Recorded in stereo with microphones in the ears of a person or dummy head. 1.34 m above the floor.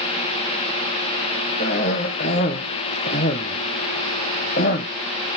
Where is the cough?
45° left (ahead or behind), 0.9 m.